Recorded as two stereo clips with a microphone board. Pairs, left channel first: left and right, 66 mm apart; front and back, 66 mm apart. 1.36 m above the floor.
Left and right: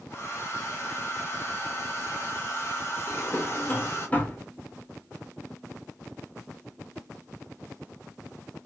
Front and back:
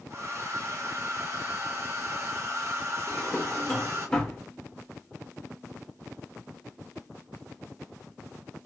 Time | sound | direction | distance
0.1 | a hair dryer | 140° left | 0.7 m
3.1 | a drawer | 65° left | 0.7 m